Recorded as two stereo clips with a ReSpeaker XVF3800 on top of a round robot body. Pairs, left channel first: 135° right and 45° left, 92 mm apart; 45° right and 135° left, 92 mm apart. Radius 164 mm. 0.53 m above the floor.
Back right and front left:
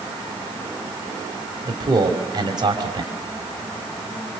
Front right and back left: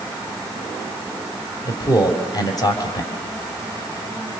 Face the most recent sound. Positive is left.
turn(degrees=0)